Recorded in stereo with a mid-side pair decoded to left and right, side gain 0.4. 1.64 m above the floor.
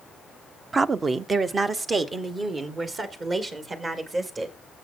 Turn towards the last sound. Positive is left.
turn(degrees=-50)